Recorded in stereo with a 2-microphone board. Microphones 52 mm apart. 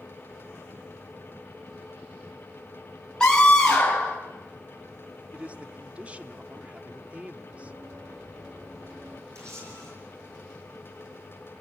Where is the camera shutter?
70° right (ahead or behind), 8.5 m.